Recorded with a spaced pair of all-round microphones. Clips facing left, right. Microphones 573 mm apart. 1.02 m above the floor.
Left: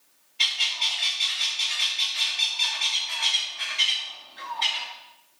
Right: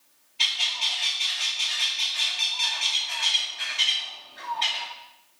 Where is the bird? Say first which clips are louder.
Right 1 dB; centre (ahead or behind), 2.5 m.